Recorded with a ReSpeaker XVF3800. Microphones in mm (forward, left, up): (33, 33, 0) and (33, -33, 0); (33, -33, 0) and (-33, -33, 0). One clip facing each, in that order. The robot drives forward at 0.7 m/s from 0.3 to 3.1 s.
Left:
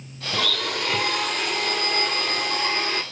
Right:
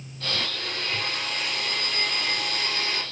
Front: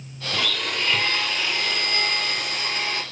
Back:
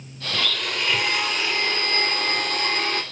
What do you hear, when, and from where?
0.3 s a blender: 80° left, 1.4 m; by 3.0 s 140° left, 2 m